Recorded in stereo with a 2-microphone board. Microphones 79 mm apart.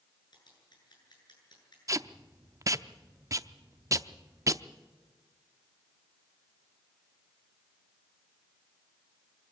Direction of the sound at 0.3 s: 65° left (ahead or behind).